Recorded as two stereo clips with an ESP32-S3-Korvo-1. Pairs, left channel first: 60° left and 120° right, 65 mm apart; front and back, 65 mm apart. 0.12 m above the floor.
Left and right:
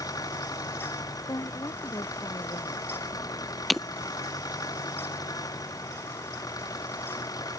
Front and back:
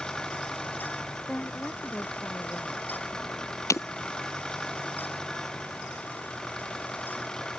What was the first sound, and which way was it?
An engine running, 80° left.